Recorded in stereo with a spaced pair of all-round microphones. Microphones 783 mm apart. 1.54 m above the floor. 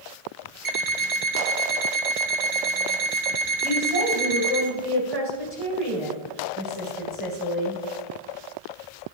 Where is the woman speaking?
45° right (ahead or behind), 5.5 m.